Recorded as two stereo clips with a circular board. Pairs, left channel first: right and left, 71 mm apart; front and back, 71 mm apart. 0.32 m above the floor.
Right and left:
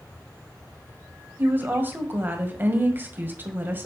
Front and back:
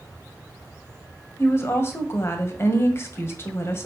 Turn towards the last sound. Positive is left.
turn(degrees=40)